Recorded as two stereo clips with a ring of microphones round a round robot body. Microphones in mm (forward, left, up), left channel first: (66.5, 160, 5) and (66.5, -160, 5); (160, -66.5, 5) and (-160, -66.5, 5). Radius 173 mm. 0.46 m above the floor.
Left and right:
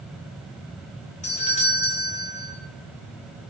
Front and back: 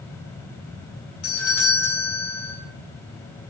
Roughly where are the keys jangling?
I don't hear keys jangling.